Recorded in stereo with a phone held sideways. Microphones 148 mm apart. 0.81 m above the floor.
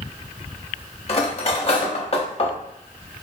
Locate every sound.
1.1 s cutlery clinking: 45° left (ahead or behind), 0.6 m